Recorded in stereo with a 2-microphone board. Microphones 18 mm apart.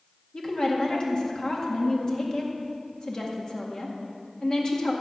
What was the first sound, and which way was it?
A woman speaking, 45° left (ahead or behind).